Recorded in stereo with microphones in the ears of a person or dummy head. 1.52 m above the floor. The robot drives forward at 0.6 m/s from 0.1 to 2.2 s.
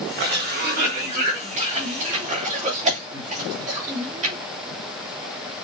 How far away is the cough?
About 1.6 m.